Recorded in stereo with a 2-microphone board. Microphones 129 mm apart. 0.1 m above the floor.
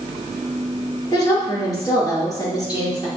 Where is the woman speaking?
30° left (ahead or behind), 1.9 m.